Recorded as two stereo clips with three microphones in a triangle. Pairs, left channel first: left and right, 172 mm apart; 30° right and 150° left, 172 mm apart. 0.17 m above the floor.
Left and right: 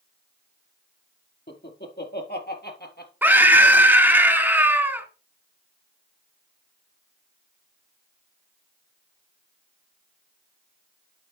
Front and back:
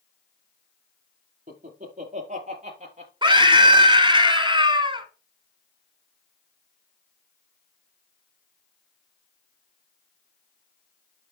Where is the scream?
165° right, 1.6 m.